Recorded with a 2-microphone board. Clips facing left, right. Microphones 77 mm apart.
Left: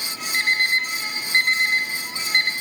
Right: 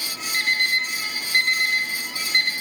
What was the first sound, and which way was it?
An alarm clock, 35° left (ahead or behind).